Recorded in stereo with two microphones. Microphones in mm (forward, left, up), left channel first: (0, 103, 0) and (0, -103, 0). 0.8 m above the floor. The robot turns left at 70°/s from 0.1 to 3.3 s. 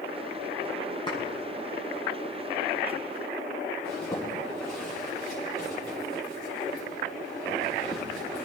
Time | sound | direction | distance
1.1 | a clap | 20° left (ahead or behind) | 6.5 m
3.8 | a zipper | centre (ahead or behind) | 7.5 m